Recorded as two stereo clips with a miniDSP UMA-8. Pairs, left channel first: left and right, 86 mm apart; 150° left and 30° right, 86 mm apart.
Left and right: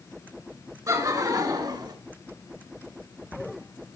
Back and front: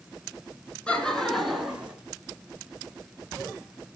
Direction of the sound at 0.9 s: 135° right.